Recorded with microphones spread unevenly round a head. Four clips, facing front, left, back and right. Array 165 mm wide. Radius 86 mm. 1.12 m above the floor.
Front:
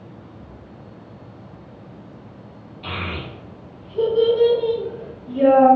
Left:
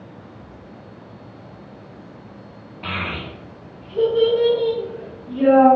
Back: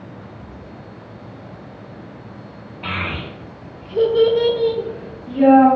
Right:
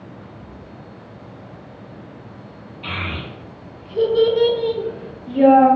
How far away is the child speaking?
About 0.9 m.